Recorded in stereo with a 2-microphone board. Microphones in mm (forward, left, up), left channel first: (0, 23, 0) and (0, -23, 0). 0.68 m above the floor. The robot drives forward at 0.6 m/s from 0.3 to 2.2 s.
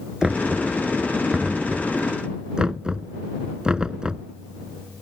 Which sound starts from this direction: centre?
Knocking, at 0.2 s.